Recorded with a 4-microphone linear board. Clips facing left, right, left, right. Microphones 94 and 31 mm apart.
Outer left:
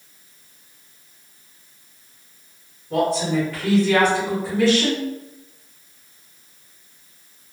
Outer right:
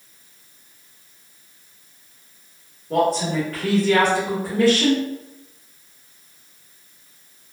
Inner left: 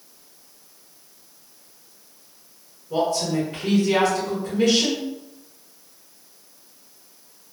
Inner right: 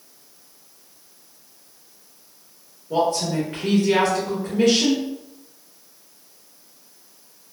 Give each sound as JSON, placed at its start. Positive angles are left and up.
{"t": 2.9, "sound": "a woman speaking", "side_deg": -50, "distance_m": 1.9}